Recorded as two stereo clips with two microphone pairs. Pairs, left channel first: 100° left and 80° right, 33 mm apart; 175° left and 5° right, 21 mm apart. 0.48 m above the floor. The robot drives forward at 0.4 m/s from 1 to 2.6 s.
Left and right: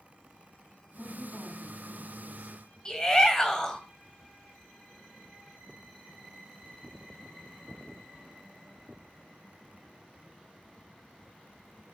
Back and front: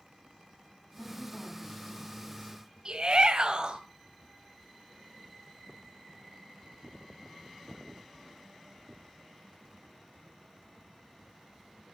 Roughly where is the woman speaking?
Behind.